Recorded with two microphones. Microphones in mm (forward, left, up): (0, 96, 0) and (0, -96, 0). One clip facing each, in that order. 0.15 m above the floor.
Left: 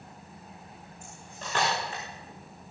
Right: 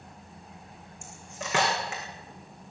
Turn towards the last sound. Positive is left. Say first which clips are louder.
# right 4 dB
turn(degrees=-70)  # may be behind; listen again after turning